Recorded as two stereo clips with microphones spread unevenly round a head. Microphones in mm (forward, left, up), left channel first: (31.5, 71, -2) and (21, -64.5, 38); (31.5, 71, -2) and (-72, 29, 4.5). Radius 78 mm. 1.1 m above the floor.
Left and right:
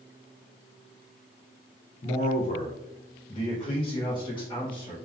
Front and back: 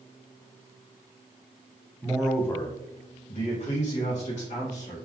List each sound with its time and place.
2.0 s a man speaking: 120° left, 0.7 m; by 5.0 s 30° left, 2.0 m